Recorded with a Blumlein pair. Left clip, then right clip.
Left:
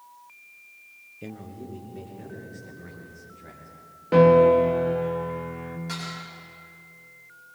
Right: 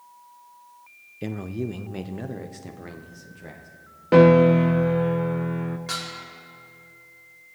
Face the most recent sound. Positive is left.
turn(degrees=-45)